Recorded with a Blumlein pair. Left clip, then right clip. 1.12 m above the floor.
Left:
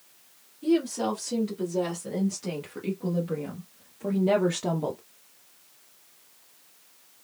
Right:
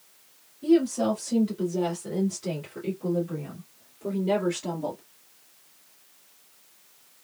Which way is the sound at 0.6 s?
5° right.